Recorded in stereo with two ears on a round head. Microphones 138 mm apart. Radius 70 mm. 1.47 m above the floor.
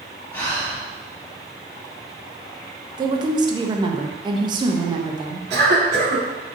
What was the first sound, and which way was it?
Breathing, 15° left (ahead or behind).